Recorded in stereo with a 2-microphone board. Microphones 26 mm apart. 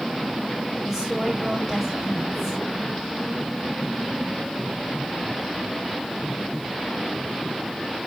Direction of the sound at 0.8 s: 10° right (ahead or behind).